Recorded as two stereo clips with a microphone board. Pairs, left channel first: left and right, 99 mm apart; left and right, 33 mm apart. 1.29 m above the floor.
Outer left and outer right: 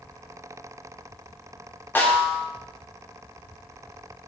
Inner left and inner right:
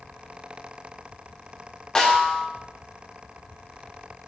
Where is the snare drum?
20° left (ahead or behind), 0.8 m.